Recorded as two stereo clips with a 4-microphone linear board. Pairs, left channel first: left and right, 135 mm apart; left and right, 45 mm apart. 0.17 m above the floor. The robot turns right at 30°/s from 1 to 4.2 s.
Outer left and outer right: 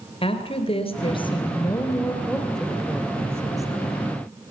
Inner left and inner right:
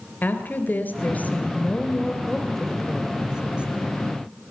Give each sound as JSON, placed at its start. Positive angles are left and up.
{"t": 0.2, "sound": "a woman speaking", "azimuth_deg": 130, "distance_m": 2.5}